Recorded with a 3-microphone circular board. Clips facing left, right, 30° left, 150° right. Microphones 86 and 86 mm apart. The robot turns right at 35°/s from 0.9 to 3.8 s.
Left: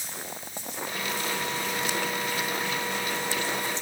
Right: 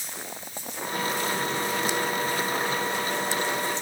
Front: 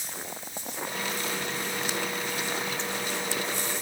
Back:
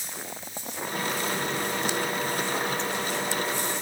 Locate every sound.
Only background noise.